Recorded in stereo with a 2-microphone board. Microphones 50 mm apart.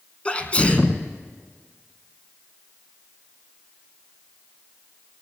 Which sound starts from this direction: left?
A sneeze, at 0.2 s.